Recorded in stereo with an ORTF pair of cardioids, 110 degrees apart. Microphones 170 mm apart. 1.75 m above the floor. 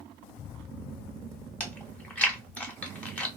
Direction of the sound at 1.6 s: 5° left.